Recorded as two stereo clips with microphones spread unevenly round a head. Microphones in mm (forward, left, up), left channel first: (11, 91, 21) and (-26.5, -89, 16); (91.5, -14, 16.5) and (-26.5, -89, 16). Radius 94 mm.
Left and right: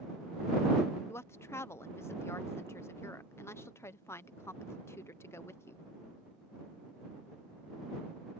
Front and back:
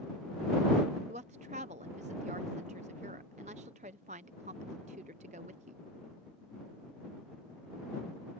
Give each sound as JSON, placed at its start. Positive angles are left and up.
{"t": 1.1, "sound": "a woman speaking", "azimuth_deg": 155}